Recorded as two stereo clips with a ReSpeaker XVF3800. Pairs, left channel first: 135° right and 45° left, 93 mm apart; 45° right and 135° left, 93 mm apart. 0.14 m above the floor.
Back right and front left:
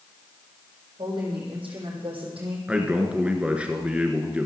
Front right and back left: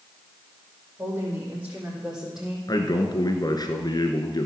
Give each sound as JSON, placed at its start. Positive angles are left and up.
{"t": 1.0, "sound": "a woman speaking", "azimuth_deg": 65, "distance_m": 5.5}
{"t": 2.7, "sound": "a man speaking", "azimuth_deg": -30, "distance_m": 1.6}